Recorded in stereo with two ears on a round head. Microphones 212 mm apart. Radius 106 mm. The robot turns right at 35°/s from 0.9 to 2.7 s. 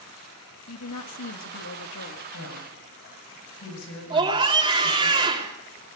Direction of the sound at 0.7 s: 70° left.